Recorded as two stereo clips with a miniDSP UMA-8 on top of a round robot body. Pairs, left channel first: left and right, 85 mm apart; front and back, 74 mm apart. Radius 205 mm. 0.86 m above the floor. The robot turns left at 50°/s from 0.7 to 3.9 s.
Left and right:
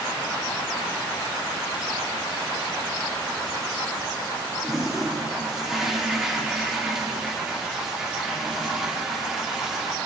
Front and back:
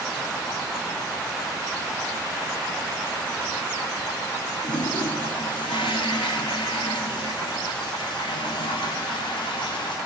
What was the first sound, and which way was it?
A toilet flushing, 5° right.